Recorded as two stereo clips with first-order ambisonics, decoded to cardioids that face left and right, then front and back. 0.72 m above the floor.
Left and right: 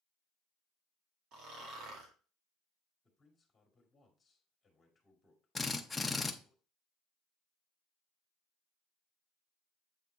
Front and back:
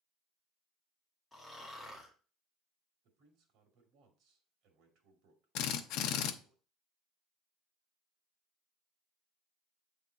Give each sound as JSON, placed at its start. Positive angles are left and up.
{"t": 1.3, "sound": "snoring", "azimuth_deg": -90, "distance_m": 1.7}
{"t": 3.0, "sound": "a man speaking", "azimuth_deg": 170, "distance_m": 2.0}
{"t": 5.5, "sound": "a drill", "azimuth_deg": 10, "distance_m": 0.6}